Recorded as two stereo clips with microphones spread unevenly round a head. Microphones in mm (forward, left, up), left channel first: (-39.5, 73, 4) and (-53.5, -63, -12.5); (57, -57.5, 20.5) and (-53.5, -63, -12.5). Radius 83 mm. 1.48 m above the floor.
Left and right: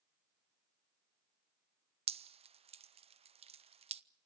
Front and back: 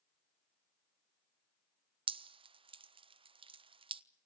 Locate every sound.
2.1 s dripping: 140° right, 0.7 m